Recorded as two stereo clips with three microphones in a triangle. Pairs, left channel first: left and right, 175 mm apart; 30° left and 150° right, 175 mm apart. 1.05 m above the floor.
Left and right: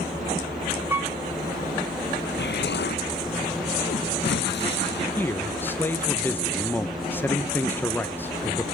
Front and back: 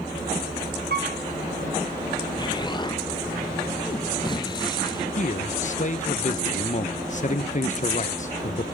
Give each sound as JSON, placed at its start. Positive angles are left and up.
{"t": 0.9, "sound": "a piano", "azimuth_deg": -170, "distance_m": 1.9}
{"t": 2.4, "sound": "an explosion", "azimuth_deg": 90, "distance_m": 0.6}
{"t": 5.2, "sound": "a man speaking", "azimuth_deg": 15, "distance_m": 0.9}